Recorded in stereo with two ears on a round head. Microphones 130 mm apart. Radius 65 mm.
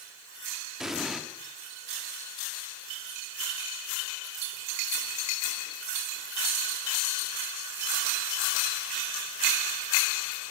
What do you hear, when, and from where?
0.8 s an explosion: 5° right (ahead or behind), 1.3 m